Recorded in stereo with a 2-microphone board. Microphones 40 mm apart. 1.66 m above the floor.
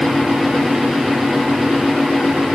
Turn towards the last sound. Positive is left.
No sound to turn to.